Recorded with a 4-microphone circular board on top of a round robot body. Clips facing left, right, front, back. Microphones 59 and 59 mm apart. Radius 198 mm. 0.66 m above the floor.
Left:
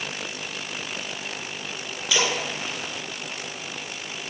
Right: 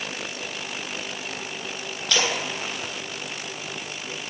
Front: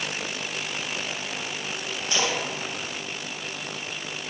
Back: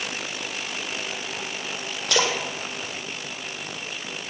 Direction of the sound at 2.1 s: 170° left.